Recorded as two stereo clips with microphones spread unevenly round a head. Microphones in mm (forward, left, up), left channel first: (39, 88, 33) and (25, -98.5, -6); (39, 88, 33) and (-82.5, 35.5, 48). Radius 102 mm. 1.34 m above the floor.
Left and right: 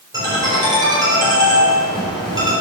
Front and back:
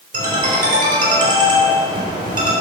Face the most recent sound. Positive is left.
turn(degrees=-170)